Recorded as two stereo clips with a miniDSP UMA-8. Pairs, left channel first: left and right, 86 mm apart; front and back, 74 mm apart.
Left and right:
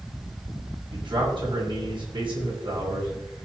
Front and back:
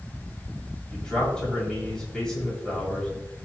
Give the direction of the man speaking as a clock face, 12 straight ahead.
3 o'clock.